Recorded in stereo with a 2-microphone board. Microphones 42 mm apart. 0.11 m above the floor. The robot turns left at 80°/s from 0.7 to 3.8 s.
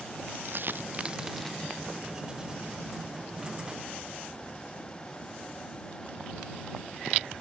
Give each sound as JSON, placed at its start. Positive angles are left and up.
{"t": 0.5, "sound": "a dropped coin", "side_deg": -55}